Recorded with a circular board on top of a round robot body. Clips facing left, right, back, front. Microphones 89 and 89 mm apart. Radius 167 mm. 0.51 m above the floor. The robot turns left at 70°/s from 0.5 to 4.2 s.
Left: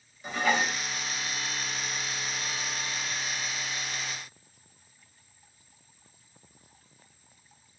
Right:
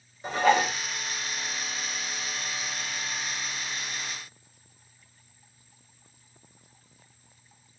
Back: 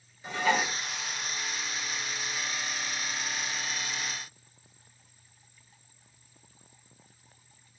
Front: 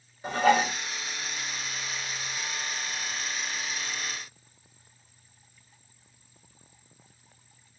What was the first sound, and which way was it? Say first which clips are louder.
Dishes clattering: right 5 dB, front 5 dB; 40° right.